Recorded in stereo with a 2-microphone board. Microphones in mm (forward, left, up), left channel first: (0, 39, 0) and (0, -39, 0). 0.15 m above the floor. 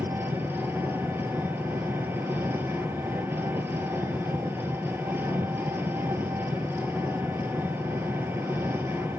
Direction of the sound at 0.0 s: 30° right (ahead or behind).